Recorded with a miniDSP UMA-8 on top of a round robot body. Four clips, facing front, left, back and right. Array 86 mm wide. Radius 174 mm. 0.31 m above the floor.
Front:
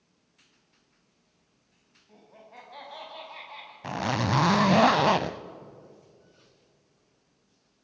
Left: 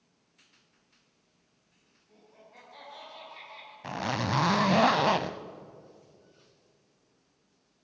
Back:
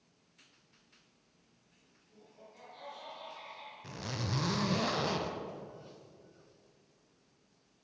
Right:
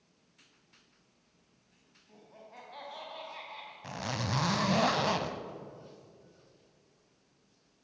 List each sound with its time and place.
2.1 s laughter: 20° right, 4 m
3.8 s a zipper: 25° left, 0.5 m